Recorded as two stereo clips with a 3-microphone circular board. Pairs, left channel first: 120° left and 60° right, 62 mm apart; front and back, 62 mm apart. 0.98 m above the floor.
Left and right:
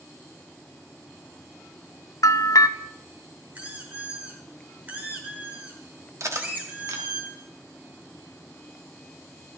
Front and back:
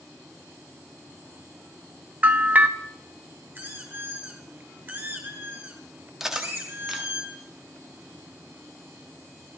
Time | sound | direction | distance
2.2 | a bell | 115° left | 0.7 m
3.5 | a squeak | 120° right | 3.5 m
6.2 | cutlery clinking | 100° right | 1.2 m